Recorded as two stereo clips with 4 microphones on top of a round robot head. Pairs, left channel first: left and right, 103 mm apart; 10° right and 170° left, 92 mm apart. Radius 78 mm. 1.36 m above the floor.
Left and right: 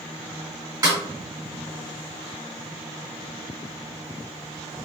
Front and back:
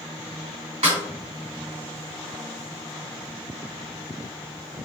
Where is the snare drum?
145° right, 1.8 m.